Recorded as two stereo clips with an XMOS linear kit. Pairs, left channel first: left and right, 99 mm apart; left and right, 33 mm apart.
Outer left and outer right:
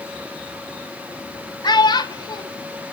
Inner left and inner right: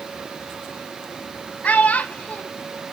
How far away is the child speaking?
About 0.9 m.